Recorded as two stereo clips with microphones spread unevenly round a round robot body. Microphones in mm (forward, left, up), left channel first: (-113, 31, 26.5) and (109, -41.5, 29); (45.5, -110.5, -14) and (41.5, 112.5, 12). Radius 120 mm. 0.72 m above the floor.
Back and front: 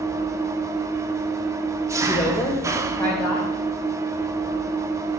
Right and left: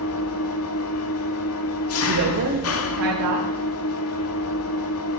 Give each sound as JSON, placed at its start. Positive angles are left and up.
{"t": 0.0, "sound": "an engine running", "azimuth_deg": -95, "distance_m": 1.2}
{"t": 2.0, "sound": "a woman speaking", "azimuth_deg": 85, "distance_m": 3.0}